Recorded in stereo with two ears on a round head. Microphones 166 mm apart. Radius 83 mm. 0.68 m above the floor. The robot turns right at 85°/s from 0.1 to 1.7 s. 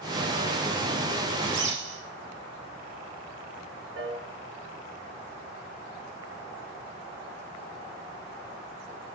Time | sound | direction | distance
1.5 | a bird | 75° right (ahead or behind) | 4 m
4.0 | a piano | 75° right (ahead or behind) | 7 m